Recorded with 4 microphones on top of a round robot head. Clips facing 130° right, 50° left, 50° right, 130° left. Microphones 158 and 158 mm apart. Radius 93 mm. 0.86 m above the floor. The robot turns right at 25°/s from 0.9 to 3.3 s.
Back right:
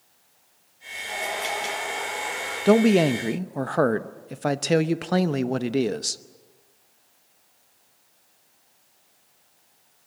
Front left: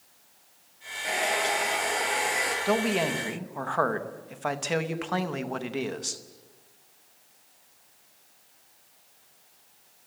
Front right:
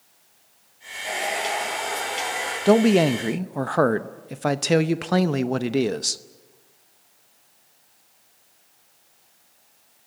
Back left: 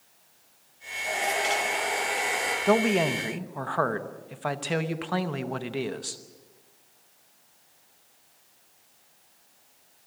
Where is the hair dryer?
25° left, 9.5 m; by 2.5 s 65° left, 9.5 m.